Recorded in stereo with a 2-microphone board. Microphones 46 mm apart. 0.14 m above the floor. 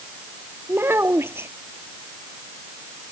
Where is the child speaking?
55° right (ahead or behind).